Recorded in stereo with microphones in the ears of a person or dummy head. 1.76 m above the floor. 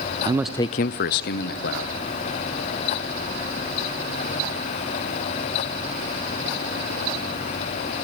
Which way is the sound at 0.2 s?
20° right (ahead or behind).